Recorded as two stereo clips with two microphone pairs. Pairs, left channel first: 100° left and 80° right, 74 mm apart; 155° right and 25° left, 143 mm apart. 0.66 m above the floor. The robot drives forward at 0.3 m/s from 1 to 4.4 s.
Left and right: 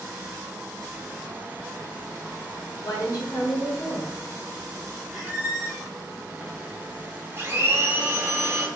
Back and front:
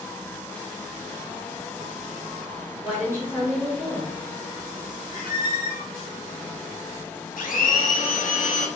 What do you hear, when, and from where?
2.8 s a woman speaking: 95° left, 1.5 m; by 4.2 s 110° left, 1.6 m
5.1 s a squeak: 160° right, 0.9 m
7.4 s a blender: 140° right, 0.6 m